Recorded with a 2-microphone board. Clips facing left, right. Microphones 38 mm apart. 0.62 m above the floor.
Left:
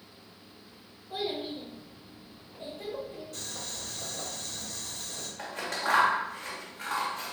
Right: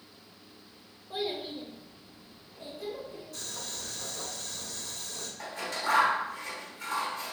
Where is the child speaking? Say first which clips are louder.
Left 1 dB; 15° right (ahead or behind), 0.7 m; by 3.2 s 40° left (ahead or behind), 1.4 m.